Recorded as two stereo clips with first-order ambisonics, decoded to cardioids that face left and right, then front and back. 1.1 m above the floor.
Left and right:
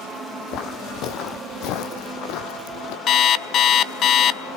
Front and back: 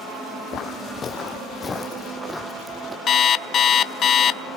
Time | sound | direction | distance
0.5 | footsteps | 50° left | 2.0 m
3.1 | an alarm clock | 50° left | 0.7 m